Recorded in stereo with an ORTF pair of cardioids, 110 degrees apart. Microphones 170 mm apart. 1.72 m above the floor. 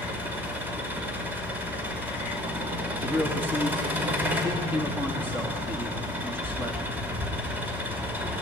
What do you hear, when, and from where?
0.0 s an engine running: 10° right, 5.5 m
3.0 s a man speaking: 15° right, 3 m